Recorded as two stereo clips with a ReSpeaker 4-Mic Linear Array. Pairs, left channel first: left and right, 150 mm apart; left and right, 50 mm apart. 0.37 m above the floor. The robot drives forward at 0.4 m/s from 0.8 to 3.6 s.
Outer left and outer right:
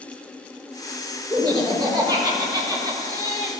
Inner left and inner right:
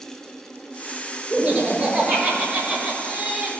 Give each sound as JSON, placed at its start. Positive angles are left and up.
{"t": 1.3, "sound": "laughter", "side_deg": -30, "distance_m": 1.5}